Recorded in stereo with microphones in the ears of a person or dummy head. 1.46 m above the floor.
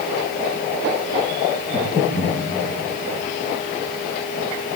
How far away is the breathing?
About 4 m.